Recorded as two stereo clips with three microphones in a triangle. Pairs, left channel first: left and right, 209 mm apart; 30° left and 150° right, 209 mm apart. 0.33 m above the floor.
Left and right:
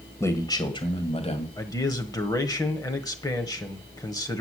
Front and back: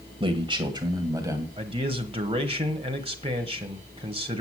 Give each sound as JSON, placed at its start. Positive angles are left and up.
{"t": 0.2, "sound": "a man speaking", "azimuth_deg": 160, "distance_m": 1.7}
{"t": 1.6, "sound": "a man speaking", "azimuth_deg": 160, "distance_m": 1.3}